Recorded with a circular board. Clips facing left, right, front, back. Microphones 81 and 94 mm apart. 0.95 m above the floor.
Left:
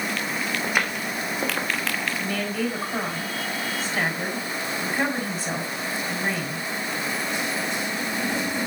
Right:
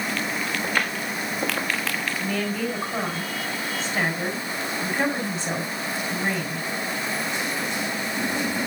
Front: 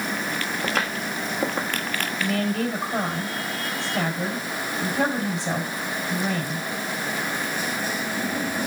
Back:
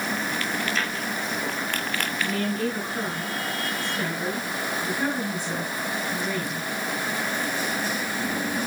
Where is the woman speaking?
5° left, 6 m.